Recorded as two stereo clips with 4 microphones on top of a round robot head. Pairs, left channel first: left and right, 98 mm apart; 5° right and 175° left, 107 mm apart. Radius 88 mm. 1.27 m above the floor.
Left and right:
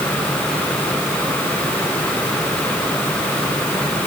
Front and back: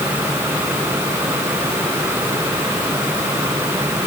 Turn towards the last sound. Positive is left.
No sound to turn to.